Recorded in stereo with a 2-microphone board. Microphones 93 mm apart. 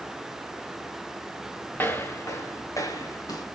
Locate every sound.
1.8 s footsteps: 20° left (ahead or behind), 1.3 m; by 3.5 s 40° left (ahead or behind), 2 m